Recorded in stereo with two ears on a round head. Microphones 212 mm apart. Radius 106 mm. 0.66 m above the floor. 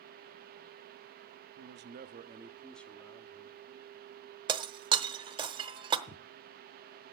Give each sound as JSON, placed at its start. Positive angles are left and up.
{"t": 1.6, "sound": "a man speaking", "side_deg": -50, "distance_m": 0.7}
{"t": 4.5, "sound": "breaking glass", "side_deg": -20, "distance_m": 0.9}
{"t": 6.1, "sound": "footsteps", "side_deg": 20, "distance_m": 0.8}